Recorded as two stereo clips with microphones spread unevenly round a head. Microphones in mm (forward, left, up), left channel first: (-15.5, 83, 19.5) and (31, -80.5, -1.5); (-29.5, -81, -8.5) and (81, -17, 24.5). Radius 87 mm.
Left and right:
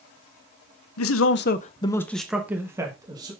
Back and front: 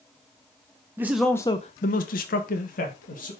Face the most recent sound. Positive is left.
turn(degrees=-140)